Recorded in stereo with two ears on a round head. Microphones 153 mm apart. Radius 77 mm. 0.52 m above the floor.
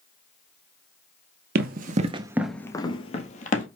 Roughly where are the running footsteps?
Right.